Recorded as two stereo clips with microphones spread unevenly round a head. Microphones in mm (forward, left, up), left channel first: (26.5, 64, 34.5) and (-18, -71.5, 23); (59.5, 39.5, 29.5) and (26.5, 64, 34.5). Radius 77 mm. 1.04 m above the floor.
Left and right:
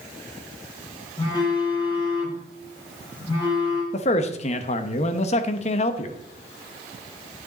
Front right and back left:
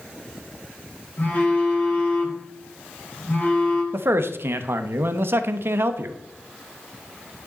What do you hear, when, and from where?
1.2 s a phone buzzing: 10° left, 5 m
3.9 s a man speaking: 120° left, 1.0 m